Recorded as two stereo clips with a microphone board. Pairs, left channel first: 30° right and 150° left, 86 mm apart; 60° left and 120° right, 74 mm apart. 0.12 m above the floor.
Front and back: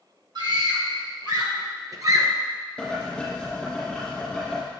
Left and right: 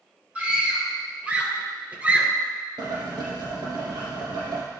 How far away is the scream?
About 2.5 m.